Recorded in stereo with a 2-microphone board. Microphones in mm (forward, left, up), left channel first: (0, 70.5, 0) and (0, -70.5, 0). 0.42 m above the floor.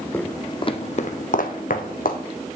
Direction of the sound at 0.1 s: 15° left (ahead or behind).